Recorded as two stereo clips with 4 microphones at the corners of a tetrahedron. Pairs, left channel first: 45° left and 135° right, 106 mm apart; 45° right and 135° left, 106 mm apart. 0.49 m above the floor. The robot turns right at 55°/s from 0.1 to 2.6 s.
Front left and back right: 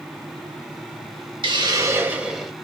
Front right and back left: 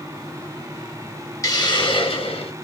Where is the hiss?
100° right, 0.7 m; by 2.5 s 40° right, 0.7 m.